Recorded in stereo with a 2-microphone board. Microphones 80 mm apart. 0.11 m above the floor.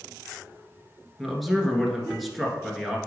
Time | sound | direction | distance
1.2 | a man speaking | centre (ahead or behind) | 1.4 m